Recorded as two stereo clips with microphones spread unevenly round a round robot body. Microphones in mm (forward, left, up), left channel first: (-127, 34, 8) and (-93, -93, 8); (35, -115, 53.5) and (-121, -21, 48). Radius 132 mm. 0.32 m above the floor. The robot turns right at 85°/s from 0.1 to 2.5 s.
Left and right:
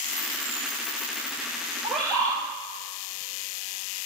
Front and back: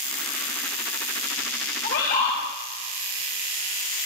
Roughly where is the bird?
Ahead.